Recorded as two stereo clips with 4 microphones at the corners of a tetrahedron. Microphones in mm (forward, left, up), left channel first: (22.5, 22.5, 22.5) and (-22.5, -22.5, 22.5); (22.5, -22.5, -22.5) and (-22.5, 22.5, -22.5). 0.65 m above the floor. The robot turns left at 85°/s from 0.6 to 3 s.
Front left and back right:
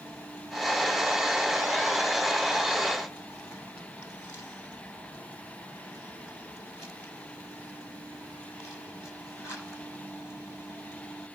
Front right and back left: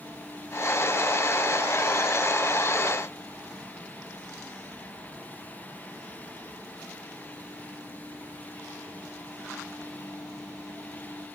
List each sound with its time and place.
Only background noise.